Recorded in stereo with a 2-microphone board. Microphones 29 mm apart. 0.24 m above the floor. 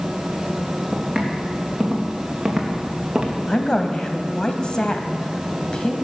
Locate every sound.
0.9 s footsteps: 5° right (ahead or behind), 4 m; by 3.4 s 15° right (ahead or behind), 2.5 m
3.5 s a woman speaking: 30° left (ahead or behind), 1.0 m